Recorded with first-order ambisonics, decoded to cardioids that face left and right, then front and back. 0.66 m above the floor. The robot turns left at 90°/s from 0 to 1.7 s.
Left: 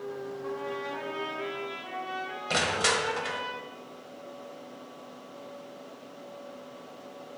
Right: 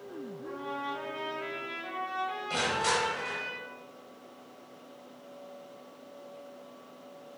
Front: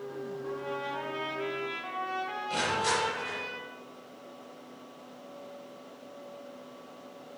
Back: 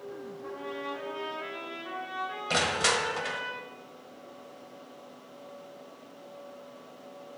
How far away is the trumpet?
About 3 m.